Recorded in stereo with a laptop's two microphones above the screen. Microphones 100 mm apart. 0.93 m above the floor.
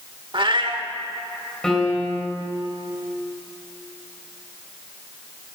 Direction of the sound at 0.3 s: 55° right (ahead or behind).